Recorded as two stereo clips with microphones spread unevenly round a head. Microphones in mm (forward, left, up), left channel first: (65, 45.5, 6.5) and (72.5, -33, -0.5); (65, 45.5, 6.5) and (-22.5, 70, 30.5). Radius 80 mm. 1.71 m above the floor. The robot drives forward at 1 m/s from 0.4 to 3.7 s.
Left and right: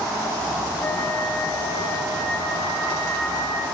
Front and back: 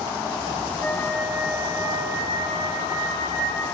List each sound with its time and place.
0.8 s a flute: 55° left, 0.8 m; by 3.6 s 170° left, 2.5 m